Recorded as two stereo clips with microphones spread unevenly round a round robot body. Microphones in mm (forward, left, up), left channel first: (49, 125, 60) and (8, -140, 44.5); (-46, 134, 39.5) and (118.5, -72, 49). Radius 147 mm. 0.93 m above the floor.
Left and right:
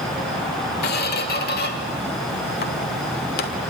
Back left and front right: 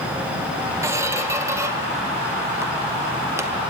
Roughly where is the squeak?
Ahead left.